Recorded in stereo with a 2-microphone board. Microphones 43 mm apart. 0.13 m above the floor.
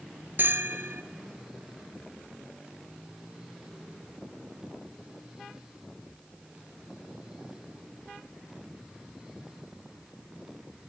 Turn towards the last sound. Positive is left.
turn(degrees=-55)  # may be behind; listen again after turning